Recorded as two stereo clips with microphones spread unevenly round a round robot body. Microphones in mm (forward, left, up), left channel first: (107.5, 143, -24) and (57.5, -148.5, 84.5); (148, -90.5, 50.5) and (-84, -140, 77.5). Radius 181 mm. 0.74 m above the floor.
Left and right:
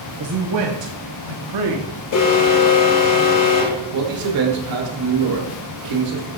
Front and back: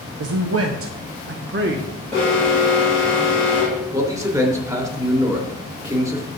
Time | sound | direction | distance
0.2 | a man speaking | 160° right | 1.0 m
2.1 | an alarm | 95° left | 5 m
3.9 | a man speaking | 90° right | 3 m